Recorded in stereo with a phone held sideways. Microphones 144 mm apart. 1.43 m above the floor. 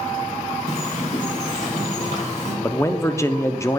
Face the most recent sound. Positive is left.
turn(degrees=20)  # may be behind; listen again after turning